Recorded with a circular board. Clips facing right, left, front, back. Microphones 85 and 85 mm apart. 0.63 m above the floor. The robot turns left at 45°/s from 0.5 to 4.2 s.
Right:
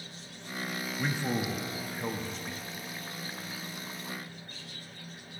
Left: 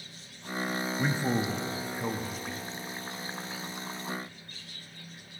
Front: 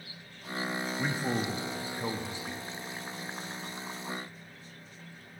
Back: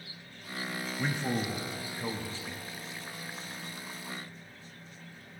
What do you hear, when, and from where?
1.0 s a man speaking: 70° left, 0.6 m; by 2.6 s 5° right, 0.6 m